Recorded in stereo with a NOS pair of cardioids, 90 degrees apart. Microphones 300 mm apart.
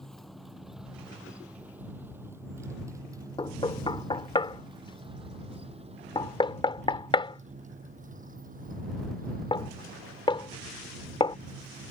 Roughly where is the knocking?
Ahead.